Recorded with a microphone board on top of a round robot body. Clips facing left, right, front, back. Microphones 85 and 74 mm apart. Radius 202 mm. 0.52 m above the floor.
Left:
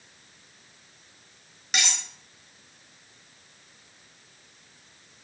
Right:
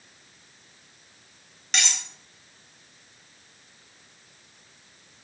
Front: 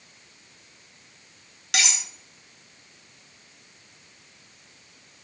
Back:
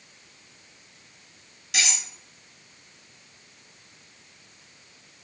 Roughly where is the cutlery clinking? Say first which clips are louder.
Even, front 1 dB; ahead.